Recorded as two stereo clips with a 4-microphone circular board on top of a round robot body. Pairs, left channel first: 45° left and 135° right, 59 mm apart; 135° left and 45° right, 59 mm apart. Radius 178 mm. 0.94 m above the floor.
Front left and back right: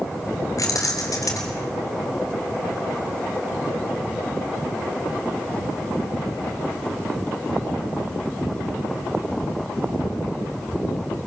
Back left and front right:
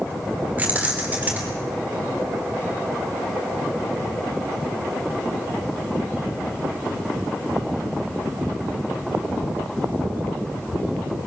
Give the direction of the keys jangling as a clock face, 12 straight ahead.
11 o'clock.